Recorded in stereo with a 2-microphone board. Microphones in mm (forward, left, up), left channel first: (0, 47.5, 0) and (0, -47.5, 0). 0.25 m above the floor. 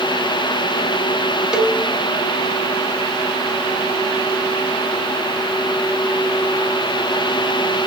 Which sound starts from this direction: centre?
A cowbell, at 1.5 s.